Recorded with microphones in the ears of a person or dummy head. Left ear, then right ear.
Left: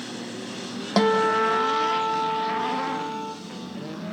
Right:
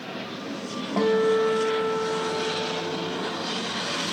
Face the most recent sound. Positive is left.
turn(degrees=80)